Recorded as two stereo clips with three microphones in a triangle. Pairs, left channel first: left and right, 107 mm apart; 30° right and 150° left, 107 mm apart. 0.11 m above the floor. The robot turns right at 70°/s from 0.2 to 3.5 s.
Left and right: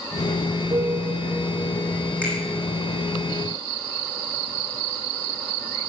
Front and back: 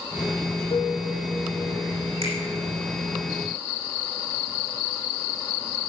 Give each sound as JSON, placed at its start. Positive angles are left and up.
{"t": 0.7, "sound": "a piano", "azimuth_deg": -60, "distance_m": 3.0}
{"t": 2.2, "sound": "a finger snap", "azimuth_deg": 165, "distance_m": 6.0}